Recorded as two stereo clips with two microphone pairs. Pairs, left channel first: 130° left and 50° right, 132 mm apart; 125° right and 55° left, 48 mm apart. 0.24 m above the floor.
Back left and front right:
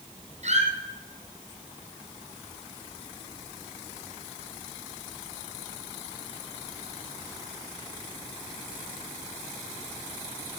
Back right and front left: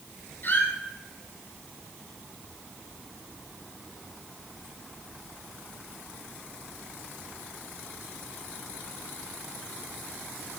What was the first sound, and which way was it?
A squeak, 80° right.